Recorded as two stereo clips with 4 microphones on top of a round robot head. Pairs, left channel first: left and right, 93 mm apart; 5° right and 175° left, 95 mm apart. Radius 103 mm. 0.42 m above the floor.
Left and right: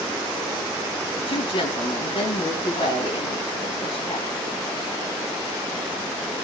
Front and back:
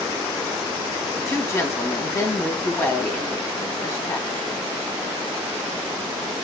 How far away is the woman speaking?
About 3.5 m.